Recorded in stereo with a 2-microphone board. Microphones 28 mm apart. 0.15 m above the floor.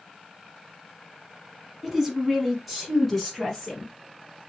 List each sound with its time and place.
1.8 s a woman speaking: 15° right (ahead or behind), 1.1 m; by 3.9 s centre (ahead or behind), 1.8 m